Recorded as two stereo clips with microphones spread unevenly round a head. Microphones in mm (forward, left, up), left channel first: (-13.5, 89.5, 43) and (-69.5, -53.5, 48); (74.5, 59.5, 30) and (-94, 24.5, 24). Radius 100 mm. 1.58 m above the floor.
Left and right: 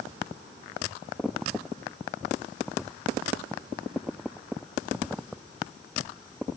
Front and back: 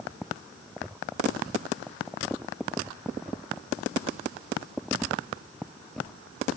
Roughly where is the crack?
I don't hear a crack.